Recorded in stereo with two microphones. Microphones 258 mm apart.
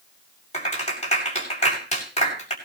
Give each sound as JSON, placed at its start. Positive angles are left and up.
{"t": 0.5, "sound": "a clap", "side_deg": 25, "distance_m": 6.5}